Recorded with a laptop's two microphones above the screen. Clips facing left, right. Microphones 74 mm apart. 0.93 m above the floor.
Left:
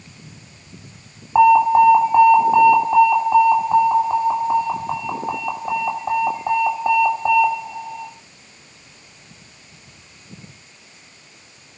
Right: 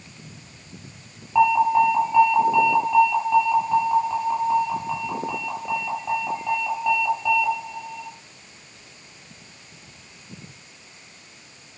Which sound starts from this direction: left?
An alarm, at 1.4 s.